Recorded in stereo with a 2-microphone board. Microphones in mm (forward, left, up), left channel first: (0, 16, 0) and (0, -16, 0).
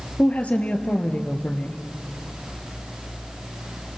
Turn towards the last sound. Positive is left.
turn(degrees=45)  # may be behind; listen again after turning